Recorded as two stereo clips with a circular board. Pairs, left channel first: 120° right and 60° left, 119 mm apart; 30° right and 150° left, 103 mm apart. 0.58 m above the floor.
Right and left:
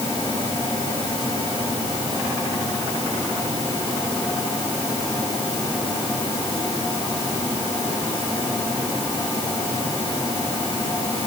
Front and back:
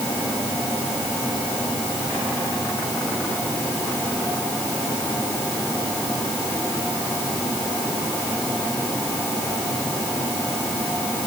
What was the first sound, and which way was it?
Only background noise.